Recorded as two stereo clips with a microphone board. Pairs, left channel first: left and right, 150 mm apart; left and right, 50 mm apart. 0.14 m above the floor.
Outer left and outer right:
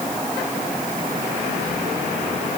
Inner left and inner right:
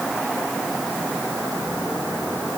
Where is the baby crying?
I don't hear a baby crying.